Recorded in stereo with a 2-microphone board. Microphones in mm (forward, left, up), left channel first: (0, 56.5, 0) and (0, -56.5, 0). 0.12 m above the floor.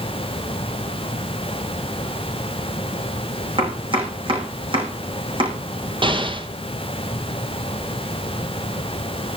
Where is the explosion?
45° right (ahead or behind), 2 m.